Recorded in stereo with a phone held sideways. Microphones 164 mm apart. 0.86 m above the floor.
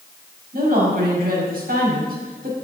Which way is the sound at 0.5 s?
65° right (ahead or behind).